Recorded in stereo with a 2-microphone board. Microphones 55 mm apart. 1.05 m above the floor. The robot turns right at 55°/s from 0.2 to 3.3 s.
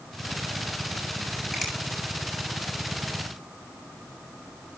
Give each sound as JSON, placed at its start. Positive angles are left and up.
{"t": 1.5, "sound": "a finger snap", "side_deg": -5, "distance_m": 7.5}